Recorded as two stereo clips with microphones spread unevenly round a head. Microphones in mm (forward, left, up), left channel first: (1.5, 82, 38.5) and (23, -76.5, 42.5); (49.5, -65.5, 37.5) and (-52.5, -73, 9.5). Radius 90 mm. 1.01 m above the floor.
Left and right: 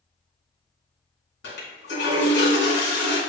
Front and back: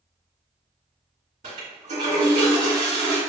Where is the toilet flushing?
125° left, 1.8 m.